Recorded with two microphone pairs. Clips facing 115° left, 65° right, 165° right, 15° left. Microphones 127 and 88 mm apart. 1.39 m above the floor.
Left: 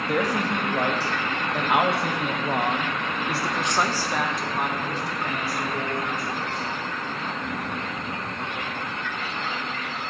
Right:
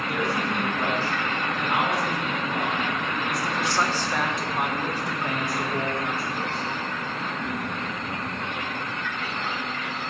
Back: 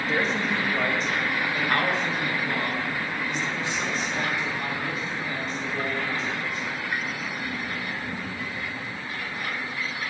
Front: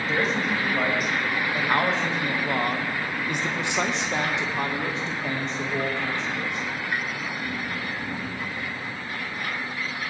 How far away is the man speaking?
About 3 m.